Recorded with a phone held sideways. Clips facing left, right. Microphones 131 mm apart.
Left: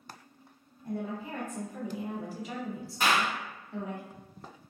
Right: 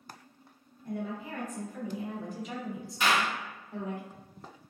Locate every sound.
0.8 s a woman speaking: 35° left (ahead or behind), 1.1 m; by 4.0 s 45° right (ahead or behind), 0.9 m
3.0 s a clap: 45° left (ahead or behind), 0.8 m